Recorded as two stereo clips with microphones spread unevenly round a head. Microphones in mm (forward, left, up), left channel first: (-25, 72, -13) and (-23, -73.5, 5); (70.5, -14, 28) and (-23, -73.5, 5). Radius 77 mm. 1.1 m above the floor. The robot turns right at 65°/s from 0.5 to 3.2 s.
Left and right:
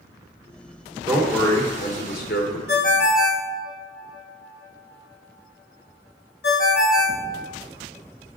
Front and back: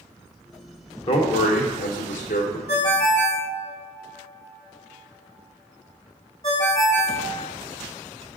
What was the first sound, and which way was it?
A man speaking, 15° right.